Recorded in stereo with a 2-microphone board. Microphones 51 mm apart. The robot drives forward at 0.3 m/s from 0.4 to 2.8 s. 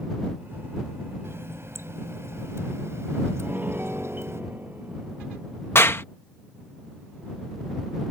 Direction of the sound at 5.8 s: 50° left (ahead or behind).